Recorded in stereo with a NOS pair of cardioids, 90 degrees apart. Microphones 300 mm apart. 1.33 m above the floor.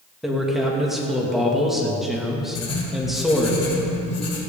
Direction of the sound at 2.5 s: 55° left.